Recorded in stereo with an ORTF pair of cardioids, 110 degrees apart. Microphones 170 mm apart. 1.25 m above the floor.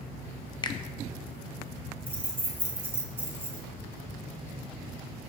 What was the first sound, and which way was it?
A finger snap, 25° left.